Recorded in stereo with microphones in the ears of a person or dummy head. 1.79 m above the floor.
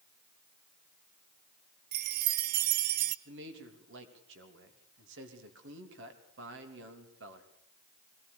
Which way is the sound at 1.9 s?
60° right (ahead or behind).